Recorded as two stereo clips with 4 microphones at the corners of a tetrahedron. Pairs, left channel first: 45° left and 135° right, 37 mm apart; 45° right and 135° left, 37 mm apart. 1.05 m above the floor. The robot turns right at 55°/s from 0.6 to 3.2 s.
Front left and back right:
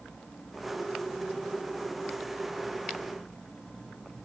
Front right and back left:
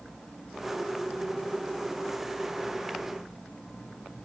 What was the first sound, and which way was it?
Only background noise.